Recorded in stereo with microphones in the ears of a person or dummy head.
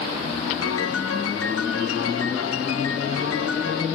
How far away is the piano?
About 0.7 m.